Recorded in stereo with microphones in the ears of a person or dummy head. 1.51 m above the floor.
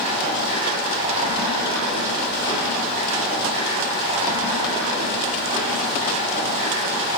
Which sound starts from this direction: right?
Running water, at 0.0 s.